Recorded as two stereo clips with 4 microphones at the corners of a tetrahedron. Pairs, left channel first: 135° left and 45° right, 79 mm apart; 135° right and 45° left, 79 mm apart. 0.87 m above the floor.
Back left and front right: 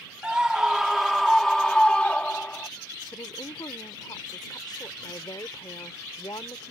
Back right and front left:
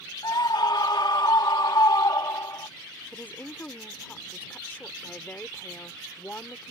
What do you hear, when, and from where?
0.2 s a scream: 120° right; by 2.7 s 160° right
3.1 s a woman speaking: 160° left